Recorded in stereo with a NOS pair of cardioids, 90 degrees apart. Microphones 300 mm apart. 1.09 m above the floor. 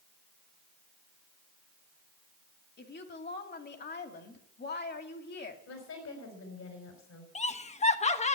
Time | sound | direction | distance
2.8 | a woman speaking | 35° left | 2.5 m
5.7 | a woman speaking | 60° left | 5 m
7.3 | laughter | 20° left | 1.2 m